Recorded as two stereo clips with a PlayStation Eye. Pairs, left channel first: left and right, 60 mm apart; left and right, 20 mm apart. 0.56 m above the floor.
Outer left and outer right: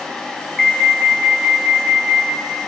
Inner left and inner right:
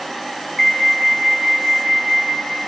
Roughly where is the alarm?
Centre.